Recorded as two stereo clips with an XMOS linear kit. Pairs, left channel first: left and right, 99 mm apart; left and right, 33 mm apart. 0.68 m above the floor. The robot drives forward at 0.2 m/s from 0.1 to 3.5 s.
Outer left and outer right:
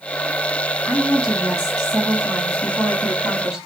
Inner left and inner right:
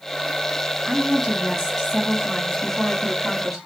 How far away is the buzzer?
No buzzer in this recording.